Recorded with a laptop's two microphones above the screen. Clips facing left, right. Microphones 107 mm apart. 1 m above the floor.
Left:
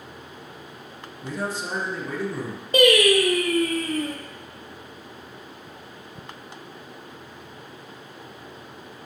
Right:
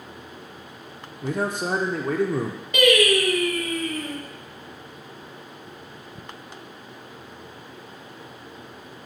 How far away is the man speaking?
About 0.6 m.